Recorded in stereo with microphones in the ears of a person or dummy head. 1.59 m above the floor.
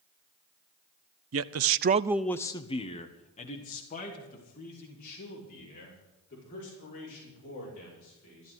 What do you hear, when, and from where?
1.3 s a man speaking: 70° right (ahead or behind), 0.8 m; by 8.5 s 40° left (ahead or behind), 8 m